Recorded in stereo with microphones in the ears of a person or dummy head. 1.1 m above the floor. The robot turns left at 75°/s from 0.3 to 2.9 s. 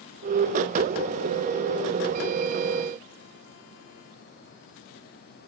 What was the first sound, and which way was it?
Only background noise.